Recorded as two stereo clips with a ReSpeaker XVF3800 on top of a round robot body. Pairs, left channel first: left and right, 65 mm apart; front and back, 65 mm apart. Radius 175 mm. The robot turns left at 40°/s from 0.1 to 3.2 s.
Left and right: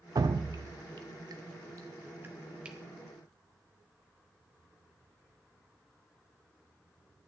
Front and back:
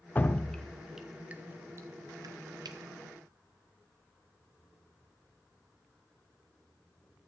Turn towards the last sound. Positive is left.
turn(degrees=175)